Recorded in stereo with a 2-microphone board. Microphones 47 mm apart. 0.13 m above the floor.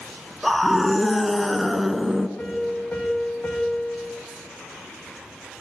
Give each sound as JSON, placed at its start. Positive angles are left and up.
{"t": 0.4, "sound": "a scream", "side_deg": 0, "distance_m": 1.5}
{"t": 2.4, "sound": "a piano", "side_deg": 45, "distance_m": 7.5}